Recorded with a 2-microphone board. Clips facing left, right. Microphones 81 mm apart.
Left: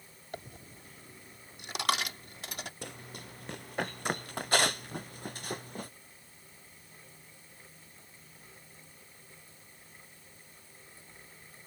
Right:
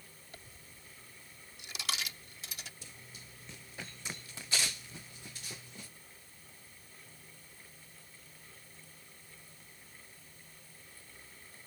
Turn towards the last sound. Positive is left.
turn(degrees=50)  # may be behind; listen again after turning